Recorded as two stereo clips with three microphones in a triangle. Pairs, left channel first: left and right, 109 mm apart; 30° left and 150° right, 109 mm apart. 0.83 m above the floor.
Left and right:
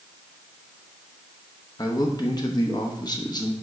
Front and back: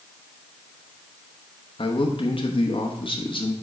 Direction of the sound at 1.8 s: 50° left.